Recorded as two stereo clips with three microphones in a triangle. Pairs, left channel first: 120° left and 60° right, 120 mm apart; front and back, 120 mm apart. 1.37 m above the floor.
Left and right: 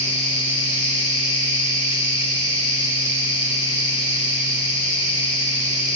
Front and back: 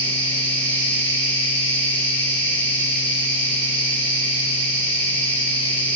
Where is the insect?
75° left, 3.5 m.